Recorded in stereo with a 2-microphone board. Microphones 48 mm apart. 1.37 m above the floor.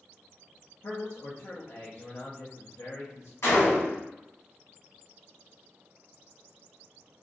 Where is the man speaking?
70° left (ahead or behind), 0.6 m.